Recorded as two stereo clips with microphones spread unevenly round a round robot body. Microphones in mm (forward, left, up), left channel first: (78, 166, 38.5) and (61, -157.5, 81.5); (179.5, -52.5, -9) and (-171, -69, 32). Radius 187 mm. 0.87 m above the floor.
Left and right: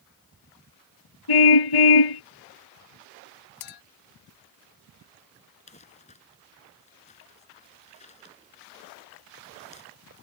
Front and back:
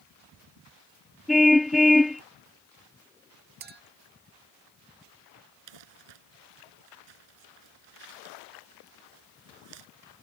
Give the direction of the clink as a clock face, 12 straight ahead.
8 o'clock.